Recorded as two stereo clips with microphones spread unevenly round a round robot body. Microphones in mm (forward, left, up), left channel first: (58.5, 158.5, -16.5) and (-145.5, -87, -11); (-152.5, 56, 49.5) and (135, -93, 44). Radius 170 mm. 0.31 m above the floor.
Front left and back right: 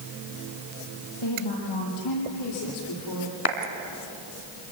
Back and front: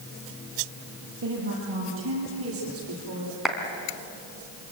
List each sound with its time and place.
1.2 s a woman speaking: 30° left, 9 m; by 3.4 s 20° left, 9.5 m
3.5 s a clap: 60° left, 3 m